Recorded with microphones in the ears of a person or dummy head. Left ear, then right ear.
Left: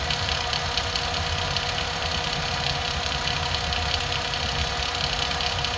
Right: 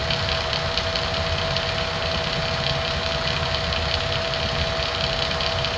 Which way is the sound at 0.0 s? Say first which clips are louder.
Right 2 dB; 15° left (ahead or behind).